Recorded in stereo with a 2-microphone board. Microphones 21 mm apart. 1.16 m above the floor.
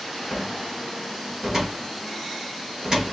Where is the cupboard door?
30° right (ahead or behind), 3 m.